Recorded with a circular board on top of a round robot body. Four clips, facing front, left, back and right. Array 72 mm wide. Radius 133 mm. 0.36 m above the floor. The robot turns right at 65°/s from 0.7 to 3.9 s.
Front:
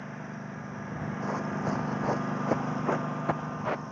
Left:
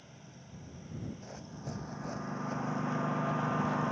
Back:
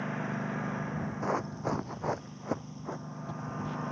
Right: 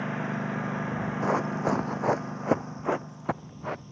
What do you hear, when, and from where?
0.0 s a lawn mower: 110° right; by 3.9 s 100° left
1.2 s running footsteps: 105° right; by 3.8 s 15° right